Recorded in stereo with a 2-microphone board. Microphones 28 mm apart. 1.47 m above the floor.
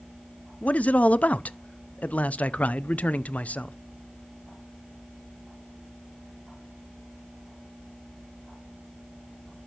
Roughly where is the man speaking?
Left.